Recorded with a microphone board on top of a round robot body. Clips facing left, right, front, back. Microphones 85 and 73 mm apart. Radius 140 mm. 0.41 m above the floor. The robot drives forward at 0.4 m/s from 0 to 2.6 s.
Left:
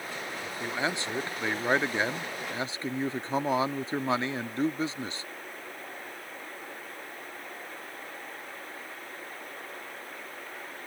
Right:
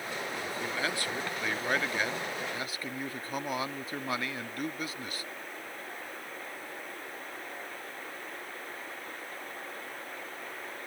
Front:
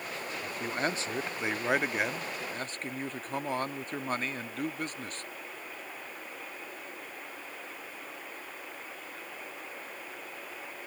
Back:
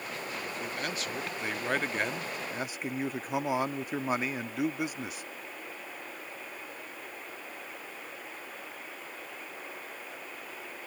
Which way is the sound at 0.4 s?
30° left.